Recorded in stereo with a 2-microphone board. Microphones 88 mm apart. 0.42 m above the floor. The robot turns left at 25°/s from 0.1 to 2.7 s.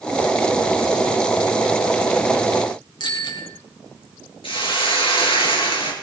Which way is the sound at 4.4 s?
80° left.